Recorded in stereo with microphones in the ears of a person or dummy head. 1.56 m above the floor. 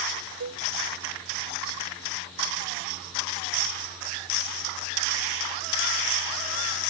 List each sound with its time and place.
0.4 s a cowbell: 80° right